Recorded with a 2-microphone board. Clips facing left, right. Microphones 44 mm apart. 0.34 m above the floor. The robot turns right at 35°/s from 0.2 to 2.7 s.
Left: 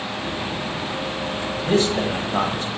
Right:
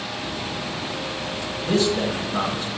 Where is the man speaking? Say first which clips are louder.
Left 1 dB; 40° left (ahead or behind), 1.5 m; by 2.7 s 55° left (ahead or behind), 1.5 m.